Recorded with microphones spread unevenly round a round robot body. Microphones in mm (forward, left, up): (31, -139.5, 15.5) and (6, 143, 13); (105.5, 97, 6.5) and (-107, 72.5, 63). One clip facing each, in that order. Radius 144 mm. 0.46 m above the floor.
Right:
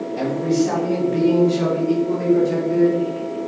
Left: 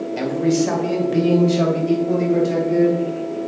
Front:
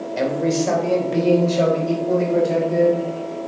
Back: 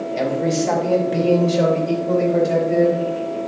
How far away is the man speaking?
About 2 m.